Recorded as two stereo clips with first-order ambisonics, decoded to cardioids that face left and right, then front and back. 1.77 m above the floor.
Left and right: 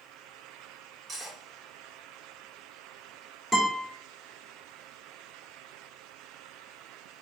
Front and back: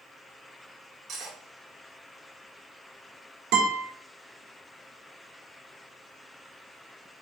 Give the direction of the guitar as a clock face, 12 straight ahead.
6 o'clock.